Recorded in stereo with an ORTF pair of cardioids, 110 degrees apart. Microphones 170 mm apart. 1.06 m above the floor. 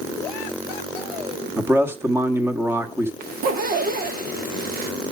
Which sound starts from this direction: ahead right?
A zipper, at 3.2 s.